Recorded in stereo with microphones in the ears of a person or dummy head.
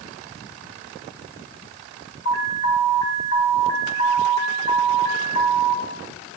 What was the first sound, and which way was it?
An alarm, 75° left (ahead or behind).